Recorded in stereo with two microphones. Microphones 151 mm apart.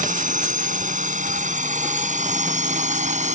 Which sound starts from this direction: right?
A drone, at 0.0 s.